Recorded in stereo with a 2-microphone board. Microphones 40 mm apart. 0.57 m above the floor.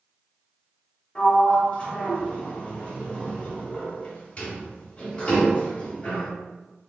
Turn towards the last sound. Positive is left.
turn(degrees=30)  # may be behind; listen again after turning